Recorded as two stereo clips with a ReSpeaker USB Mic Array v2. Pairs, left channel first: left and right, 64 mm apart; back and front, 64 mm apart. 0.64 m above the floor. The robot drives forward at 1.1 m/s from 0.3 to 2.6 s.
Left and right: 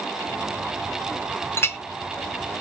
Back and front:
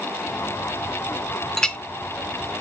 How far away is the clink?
About 0.5 m.